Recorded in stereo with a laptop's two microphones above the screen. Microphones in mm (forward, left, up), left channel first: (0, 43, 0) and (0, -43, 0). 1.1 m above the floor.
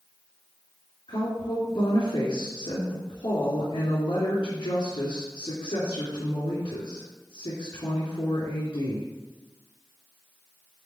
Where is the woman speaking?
80° left, 3 m.